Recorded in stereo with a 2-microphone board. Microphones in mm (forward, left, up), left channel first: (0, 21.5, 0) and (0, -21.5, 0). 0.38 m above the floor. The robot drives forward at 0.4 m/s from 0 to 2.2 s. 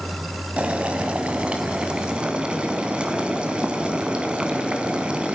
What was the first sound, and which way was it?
Boiling, 30° right (ahead or behind).